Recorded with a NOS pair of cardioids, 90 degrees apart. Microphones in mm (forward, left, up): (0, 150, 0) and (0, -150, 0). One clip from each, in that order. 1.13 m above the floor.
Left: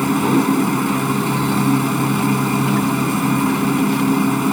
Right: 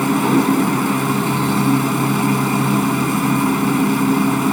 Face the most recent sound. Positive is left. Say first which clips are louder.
# right 1 dB
turn(degrees=-10)